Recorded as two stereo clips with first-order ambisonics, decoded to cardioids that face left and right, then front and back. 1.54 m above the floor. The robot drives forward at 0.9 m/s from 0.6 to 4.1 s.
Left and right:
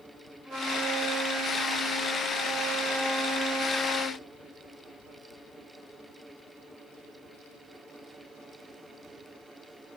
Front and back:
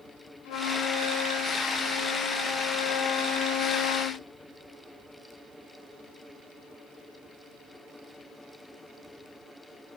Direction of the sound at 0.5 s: 10° right.